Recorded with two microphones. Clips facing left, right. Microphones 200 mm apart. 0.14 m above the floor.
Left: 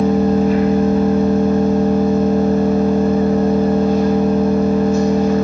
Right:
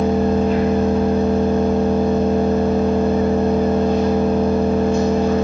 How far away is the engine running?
About 1.9 m.